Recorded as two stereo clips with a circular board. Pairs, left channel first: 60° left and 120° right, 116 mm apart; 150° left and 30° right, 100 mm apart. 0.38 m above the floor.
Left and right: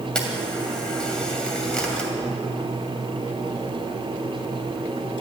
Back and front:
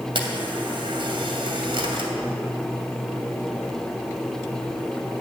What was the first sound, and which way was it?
A camera shutter, 20° right.